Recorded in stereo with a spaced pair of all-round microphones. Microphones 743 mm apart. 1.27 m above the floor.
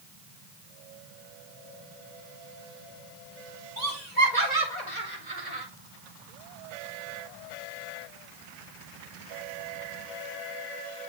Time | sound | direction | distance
3.8 | laughter | 65° right (ahead or behind) | 4.5 m